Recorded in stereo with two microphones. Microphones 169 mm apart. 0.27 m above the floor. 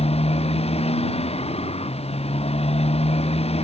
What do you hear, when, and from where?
0.0 s a motorcycle: 35° left (ahead or behind)